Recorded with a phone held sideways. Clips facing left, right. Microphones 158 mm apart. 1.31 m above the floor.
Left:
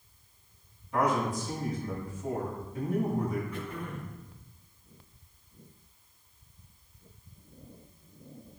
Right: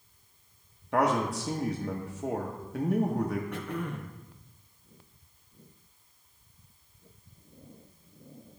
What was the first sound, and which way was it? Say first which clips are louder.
A man speaking: right 2 dB; 80° right.